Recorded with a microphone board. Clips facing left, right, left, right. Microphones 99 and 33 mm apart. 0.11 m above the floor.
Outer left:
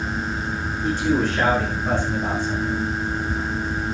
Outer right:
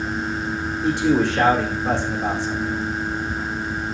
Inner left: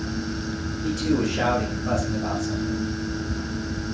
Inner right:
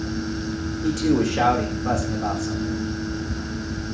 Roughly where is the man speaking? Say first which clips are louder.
Outer right 3 dB, inner right 3 dB; right.